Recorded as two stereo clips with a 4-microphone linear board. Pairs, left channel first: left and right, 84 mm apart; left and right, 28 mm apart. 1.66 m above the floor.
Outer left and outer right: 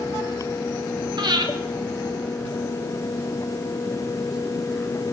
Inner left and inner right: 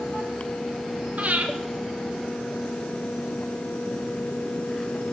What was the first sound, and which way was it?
Breathing, 60° right (ahead or behind).